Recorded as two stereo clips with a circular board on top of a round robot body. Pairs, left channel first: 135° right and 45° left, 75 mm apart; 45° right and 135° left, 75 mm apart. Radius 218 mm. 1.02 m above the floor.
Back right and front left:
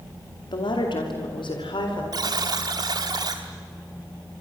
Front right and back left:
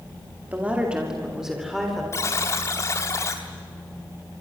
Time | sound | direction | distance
0.5 | a woman speaking | 155° right | 2.5 m
2.1 | a buzzer | 10° left | 1.0 m